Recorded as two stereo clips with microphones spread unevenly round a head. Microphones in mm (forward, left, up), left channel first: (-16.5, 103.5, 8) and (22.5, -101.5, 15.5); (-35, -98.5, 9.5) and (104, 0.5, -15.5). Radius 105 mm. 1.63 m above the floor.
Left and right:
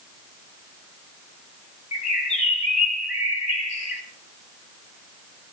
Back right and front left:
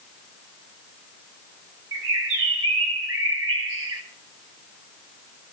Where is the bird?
45° left, 2.5 m.